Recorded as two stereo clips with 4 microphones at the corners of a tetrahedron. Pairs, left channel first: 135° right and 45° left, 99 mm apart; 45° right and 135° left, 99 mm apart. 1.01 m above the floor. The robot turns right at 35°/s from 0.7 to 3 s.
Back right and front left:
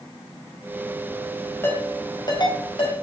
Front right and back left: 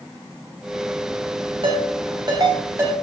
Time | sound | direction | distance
1.6 | a ringtone | 160° left | 3.5 m